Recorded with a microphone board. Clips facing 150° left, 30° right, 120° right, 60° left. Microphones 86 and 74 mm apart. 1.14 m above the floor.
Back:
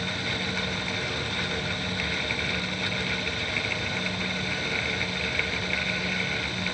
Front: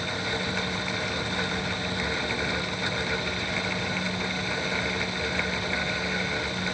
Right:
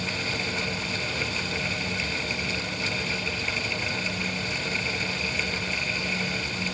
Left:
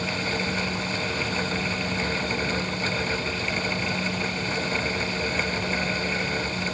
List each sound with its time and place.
Only background noise.